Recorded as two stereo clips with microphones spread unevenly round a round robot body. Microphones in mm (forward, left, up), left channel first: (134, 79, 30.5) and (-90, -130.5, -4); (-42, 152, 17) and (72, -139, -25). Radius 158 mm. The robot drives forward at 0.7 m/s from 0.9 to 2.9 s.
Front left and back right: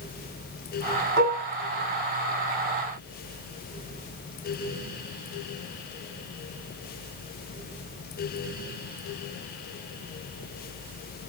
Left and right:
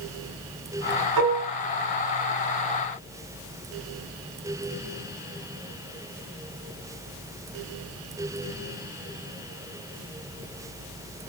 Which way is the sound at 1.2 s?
85° right.